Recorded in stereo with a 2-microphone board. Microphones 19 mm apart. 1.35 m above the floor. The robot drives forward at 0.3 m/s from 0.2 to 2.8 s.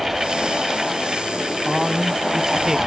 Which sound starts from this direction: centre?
A man speaking, at 1.6 s.